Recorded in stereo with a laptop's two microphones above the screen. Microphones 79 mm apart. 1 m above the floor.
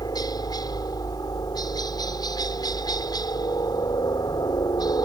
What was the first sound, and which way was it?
A helicopter, 55° left (ahead or behind).